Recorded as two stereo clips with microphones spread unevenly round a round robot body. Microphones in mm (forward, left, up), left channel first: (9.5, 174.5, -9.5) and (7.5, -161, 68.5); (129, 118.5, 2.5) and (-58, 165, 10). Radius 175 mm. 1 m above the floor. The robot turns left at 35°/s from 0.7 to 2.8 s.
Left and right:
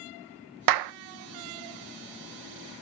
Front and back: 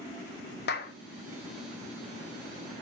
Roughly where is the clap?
Ahead right.